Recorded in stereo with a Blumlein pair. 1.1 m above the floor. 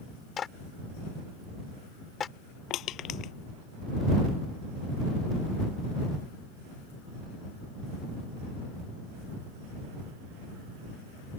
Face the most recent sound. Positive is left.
turn(degrees=35)